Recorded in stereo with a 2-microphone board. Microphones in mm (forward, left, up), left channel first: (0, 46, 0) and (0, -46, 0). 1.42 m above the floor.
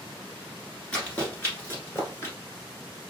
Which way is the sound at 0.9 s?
15° left (ahead or behind).